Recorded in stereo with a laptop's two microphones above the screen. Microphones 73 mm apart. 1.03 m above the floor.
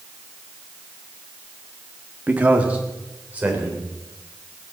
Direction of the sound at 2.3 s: 20° right (ahead or behind).